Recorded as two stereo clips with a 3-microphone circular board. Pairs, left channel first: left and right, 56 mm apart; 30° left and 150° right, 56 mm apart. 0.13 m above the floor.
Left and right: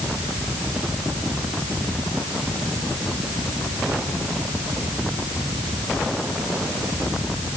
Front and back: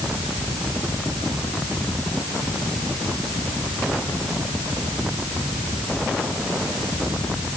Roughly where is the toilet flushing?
No toilet flushing in this recording.